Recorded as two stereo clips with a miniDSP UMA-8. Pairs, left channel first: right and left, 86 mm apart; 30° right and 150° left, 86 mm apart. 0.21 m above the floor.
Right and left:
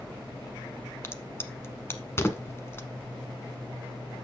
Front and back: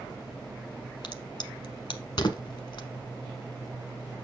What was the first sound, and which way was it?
A crack, 30° right.